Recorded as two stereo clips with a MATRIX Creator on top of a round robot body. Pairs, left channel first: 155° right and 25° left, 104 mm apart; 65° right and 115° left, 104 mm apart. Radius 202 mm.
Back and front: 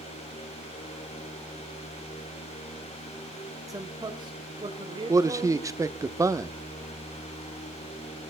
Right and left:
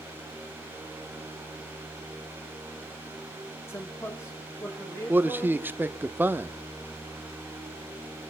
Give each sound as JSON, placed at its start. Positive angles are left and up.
{"t": 3.7, "sound": "a man speaking", "azimuth_deg": -15, "distance_m": 1.9}
{"t": 5.1, "sound": "a man speaking", "azimuth_deg": 55, "distance_m": 1.2}